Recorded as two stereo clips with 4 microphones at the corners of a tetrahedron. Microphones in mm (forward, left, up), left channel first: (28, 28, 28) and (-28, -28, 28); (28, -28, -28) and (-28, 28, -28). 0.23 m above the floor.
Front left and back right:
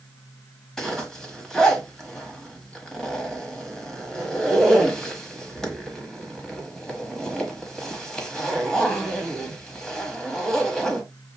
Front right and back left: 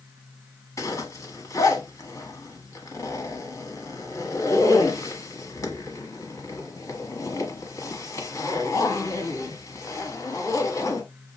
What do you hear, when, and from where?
0.8 s a zipper: 35° right, 1.3 m